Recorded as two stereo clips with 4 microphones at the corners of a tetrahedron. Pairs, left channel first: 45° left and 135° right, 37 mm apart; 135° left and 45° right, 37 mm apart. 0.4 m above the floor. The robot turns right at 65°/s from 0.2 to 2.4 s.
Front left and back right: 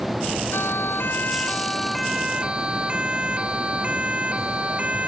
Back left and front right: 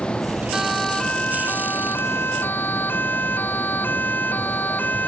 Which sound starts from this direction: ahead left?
A siren, at 0.5 s.